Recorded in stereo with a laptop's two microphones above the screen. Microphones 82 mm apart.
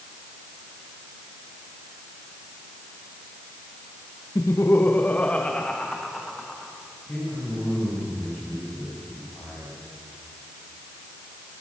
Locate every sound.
4.3 s laughter: 45° left (ahead or behind), 0.8 m; by 6.7 s centre (ahead or behind), 1.7 m
7.1 s a man speaking: 20° left (ahead or behind), 6.5 m